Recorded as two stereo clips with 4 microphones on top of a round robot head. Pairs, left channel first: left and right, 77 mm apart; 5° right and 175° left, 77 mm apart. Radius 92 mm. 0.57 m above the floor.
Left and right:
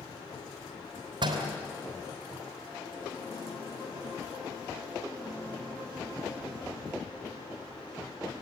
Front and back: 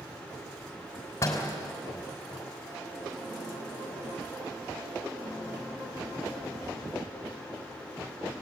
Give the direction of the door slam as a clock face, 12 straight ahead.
2 o'clock.